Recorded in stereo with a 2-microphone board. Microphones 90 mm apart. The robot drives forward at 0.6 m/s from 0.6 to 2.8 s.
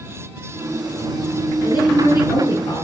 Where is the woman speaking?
55° left (ahead or behind), 7 m; by 2.9 s 50° left (ahead or behind), 7.5 m.